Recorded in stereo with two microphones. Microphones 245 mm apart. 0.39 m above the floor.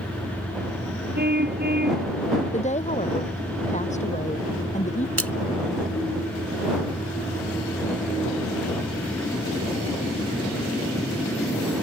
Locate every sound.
1.1 s a car horn: 40° right (ahead or behind)
2.5 s a woman speaking: 30° left (ahead or behind)
5.2 s a splash: 70° right (ahead or behind)